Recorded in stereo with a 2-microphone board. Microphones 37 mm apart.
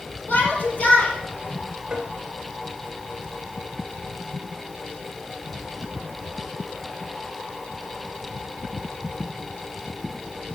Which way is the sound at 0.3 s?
40° left (ahead or behind).